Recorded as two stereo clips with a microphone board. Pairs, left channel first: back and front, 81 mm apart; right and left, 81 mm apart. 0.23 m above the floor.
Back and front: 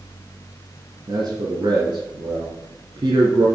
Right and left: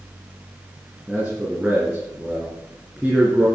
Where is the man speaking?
25° left, 3 m.